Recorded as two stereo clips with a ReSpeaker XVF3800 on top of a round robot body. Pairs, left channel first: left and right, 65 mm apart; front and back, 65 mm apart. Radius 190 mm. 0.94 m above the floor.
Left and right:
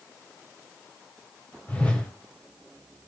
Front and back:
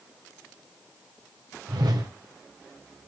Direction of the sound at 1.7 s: 160° left.